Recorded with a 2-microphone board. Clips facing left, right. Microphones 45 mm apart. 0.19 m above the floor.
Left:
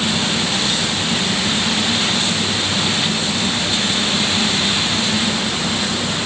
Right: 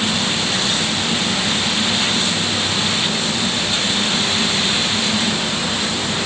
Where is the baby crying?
I don't hear a baby crying.